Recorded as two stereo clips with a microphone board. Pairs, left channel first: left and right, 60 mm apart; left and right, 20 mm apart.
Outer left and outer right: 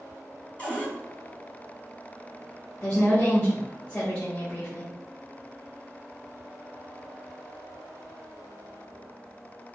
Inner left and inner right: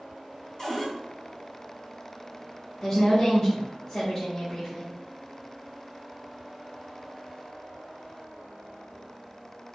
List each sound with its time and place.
0.6 s a cupboard door: 25° left (ahead or behind), 1.0 m
2.8 s a woman speaking: 20° left (ahead or behind), 0.9 m